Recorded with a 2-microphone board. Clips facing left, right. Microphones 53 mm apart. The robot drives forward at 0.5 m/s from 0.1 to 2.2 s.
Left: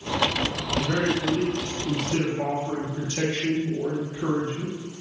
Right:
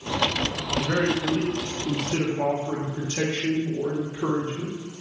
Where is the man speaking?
30° right (ahead or behind), 0.8 m; by 4.8 s 20° right (ahead or behind), 1.1 m.